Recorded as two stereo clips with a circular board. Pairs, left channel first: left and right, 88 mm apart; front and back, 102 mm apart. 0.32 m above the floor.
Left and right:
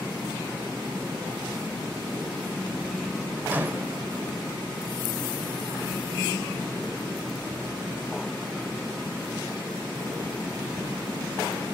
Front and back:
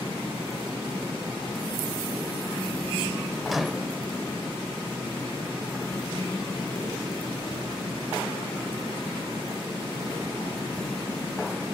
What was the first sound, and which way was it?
A microwave, 90° right.